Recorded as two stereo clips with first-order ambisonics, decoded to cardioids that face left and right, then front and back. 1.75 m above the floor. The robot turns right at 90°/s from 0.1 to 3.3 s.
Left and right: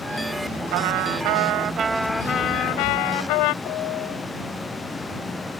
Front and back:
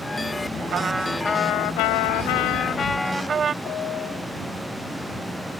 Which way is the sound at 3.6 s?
50° left.